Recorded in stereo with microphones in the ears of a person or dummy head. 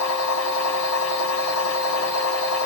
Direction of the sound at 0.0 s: 75° left (ahead or behind).